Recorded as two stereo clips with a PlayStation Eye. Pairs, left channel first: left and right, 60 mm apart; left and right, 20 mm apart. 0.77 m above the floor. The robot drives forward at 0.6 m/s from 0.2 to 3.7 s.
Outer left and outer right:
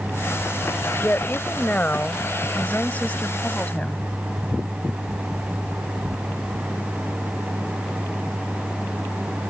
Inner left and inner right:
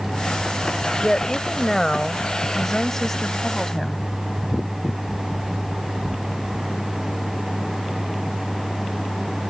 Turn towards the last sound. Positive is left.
turn(degrees=20)  # may be behind; listen again after turning